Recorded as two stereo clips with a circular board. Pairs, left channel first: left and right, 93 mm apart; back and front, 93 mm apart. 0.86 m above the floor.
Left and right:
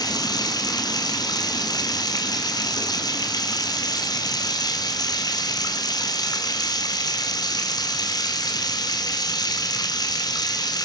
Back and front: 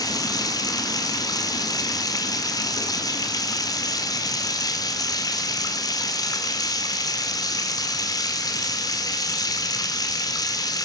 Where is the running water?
135° left, 1.7 m.